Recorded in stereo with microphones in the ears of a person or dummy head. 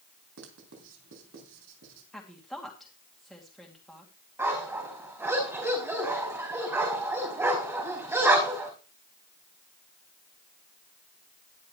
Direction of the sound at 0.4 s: 70° right (ahead or behind).